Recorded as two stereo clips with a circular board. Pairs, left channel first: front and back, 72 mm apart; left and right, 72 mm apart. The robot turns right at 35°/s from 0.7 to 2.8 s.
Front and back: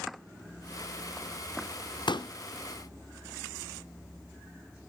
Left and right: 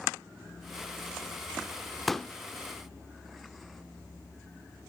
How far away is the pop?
About 0.5 m.